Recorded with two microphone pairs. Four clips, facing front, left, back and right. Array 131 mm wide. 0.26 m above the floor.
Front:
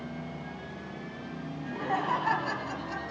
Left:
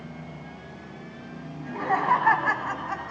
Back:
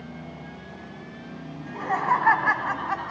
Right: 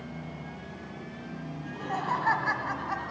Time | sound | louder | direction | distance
1.6 | laughter | left 8 dB, back 4 dB | 110° left | 2.5 m